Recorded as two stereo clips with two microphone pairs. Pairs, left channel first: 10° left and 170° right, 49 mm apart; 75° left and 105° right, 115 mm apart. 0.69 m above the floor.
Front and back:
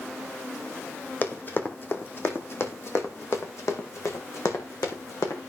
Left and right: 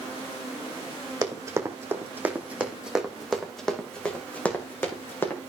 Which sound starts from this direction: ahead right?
Running footsteps, at 1.2 s.